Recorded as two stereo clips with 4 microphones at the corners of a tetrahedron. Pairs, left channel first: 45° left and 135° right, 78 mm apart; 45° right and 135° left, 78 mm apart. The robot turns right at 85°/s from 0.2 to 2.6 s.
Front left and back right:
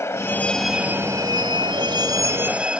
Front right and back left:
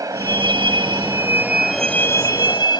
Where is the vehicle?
95° left; by 2.8 s 60° right.